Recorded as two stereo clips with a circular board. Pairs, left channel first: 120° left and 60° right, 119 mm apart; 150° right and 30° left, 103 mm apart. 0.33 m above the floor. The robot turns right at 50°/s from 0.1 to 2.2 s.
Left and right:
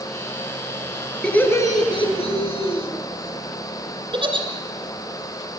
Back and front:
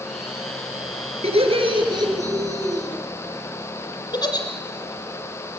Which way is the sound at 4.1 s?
105° right.